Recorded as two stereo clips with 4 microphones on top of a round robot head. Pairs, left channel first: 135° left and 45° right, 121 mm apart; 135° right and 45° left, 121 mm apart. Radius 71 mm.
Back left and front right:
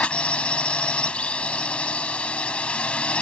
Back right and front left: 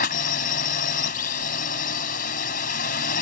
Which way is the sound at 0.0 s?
145° right.